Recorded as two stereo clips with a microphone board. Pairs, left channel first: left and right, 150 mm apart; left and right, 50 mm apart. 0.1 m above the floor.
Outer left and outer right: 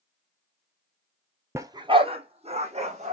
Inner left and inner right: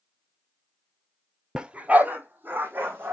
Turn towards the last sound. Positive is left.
turn(degrees=-50)  # may be behind; listen again after turning